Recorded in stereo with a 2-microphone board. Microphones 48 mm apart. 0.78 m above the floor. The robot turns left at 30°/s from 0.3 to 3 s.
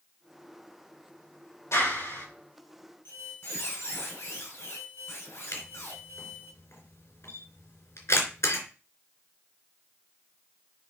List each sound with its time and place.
1.7 s a clap: 75° left (ahead or behind), 4 m; by 2.3 s 60° left (ahead or behind), 4 m
3.0 s a squeak: 50° left (ahead or behind), 4 m
5.5 s a camera shutter: 60° left (ahead or behind), 3 m